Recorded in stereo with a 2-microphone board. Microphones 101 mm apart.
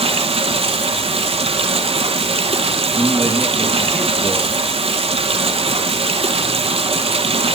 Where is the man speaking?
15° left (ahead or behind), 1.6 m.